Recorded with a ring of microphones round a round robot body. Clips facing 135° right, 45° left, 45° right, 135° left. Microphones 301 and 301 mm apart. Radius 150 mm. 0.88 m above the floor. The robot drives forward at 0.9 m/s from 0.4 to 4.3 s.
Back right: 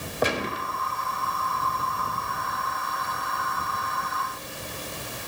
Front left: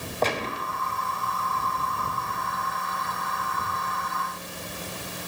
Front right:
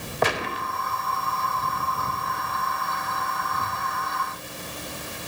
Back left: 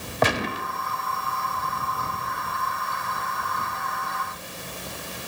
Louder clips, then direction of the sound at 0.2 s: Back right 1 dB, back left 2 dB; 145° left.